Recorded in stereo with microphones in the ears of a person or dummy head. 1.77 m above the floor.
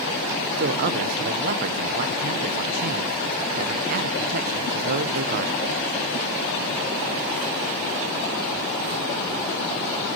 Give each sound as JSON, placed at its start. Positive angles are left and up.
{"t": 0.6, "sound": "a man speaking", "side_deg": -50, "distance_m": 1.2}